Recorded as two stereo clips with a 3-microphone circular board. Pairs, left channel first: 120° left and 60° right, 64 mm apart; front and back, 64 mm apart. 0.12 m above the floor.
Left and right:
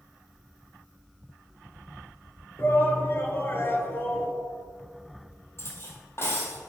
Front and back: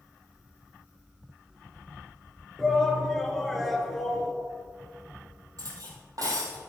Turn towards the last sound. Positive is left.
turn(degrees=165)